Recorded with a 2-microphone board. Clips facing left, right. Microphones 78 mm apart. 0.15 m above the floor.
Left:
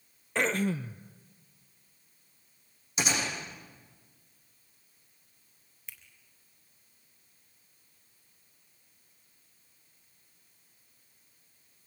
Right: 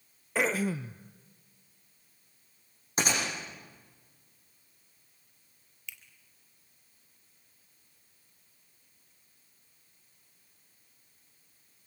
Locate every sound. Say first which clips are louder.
0.3 s throat clearing: even; 5° right (ahead or behind), 0.6 m
3.0 s a gunshot: right 1 dB; 45° right (ahead or behind), 9.5 m
5.9 s a finger snap: right 3 dB; 40° left (ahead or behind), 2.5 m